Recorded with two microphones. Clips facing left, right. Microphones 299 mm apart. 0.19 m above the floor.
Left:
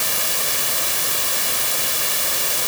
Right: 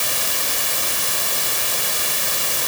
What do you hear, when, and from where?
Only background noise.